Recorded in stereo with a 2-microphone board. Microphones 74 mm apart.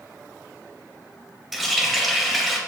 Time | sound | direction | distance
1.5 | a running tap | centre (ahead or behind) | 0.7 m